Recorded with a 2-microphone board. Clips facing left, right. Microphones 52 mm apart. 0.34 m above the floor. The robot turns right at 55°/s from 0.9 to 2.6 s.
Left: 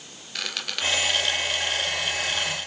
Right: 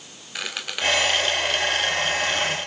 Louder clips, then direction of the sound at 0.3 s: Right 2 dB; 10° right (ahead or behind).